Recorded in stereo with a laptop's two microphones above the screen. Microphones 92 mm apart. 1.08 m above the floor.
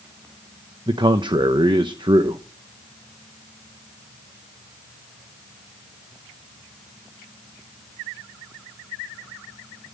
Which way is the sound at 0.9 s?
60° right (ahead or behind).